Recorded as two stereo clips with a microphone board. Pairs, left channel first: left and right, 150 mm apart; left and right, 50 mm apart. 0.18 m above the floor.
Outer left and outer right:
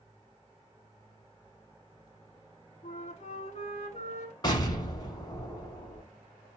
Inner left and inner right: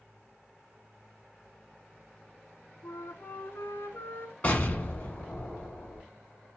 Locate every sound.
2.8 s a flute: 55° left (ahead or behind), 0.6 m
4.4 s an explosion: 30° left (ahead or behind), 0.9 m